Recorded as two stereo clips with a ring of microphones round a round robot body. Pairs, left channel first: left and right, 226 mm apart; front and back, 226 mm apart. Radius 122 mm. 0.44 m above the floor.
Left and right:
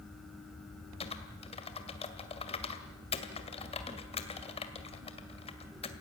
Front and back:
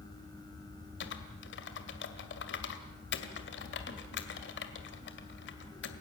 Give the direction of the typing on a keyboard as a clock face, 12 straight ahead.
11 o'clock.